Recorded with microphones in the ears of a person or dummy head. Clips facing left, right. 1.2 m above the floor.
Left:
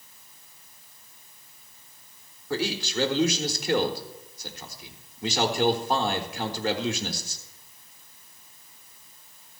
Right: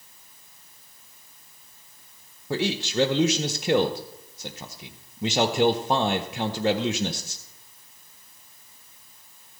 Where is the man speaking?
20° right (ahead or behind), 0.8 m.